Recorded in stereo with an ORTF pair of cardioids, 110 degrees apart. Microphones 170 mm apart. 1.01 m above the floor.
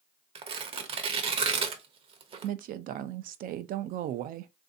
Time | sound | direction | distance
0.3 | tearing paper | 35° right | 0.7 m
2.4 | a woman speaking | 65° right | 0.5 m